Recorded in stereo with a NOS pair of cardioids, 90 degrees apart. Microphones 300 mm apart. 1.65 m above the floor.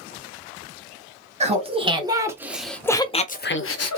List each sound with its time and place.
1.4 s laughter: 20° right, 1.5 m; by 4.0 s 65° left, 0.7 m